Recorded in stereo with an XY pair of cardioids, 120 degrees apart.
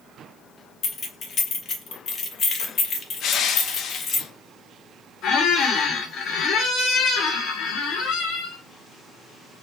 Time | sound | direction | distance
0.8 | keys jangling | 50° left | 0.8 m
3.2 | crushing | 65° left | 0.5 m
5.2 | a squeak | 70° left | 1.1 m